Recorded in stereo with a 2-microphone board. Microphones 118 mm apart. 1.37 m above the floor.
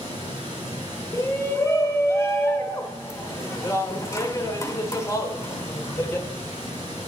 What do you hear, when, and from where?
0.0 s running water: 40° right (ahead or behind), 2.5 m
1.1 s a shout: 25° left (ahead or behind), 0.9 m